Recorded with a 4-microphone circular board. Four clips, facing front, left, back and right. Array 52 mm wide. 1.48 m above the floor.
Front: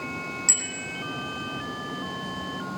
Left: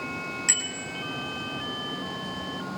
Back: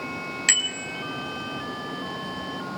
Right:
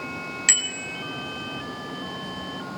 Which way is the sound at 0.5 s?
150° right.